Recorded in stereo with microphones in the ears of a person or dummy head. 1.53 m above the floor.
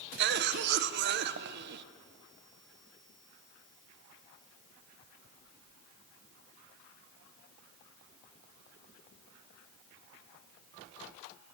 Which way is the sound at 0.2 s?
55° right (ahead or behind).